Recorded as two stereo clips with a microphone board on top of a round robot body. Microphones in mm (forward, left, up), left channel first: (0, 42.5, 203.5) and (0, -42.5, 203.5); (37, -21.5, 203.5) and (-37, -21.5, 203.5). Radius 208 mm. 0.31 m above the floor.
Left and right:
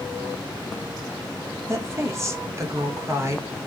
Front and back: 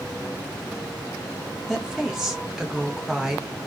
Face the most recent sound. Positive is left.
turn(degrees=-100)